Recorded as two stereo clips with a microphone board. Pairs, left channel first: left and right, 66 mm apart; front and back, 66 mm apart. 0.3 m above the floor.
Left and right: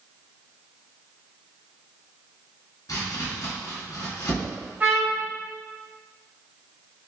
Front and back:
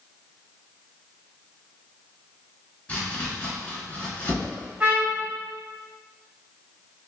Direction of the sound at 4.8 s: 130° right.